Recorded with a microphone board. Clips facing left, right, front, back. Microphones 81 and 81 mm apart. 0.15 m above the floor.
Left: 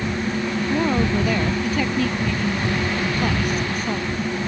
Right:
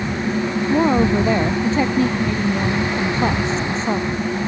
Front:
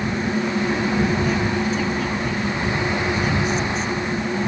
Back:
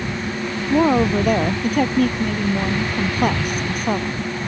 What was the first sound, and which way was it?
A woman speaking, 150° right.